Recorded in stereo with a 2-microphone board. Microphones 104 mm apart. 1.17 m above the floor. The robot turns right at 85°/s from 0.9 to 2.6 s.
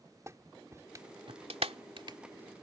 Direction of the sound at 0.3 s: 30° right (ahead or behind).